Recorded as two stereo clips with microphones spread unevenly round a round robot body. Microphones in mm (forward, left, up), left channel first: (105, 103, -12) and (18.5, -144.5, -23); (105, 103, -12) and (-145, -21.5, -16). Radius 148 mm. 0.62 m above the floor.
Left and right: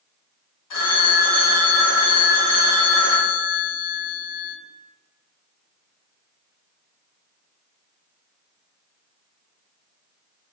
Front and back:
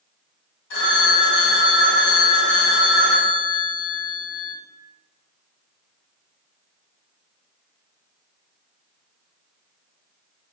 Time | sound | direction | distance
0.7 | a phone ringing | 75° left | 1.7 m